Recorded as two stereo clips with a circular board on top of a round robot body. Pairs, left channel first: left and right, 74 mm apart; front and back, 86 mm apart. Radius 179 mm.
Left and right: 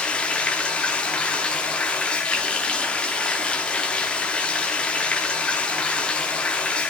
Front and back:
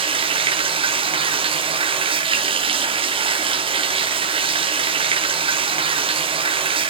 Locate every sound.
0.0 s running water: 165° left, 0.8 m